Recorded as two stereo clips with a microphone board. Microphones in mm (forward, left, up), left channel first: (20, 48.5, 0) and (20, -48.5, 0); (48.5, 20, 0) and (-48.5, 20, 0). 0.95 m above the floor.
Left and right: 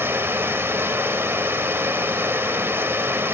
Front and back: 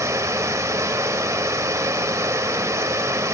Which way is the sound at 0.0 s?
145° right.